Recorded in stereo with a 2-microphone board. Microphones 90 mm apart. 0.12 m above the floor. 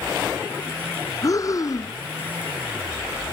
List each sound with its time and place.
1.2 s breathing: 40° left (ahead or behind)